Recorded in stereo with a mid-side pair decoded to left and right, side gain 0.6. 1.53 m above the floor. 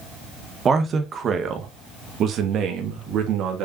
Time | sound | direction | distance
0.7 | a man speaking | 35° right | 2.0 m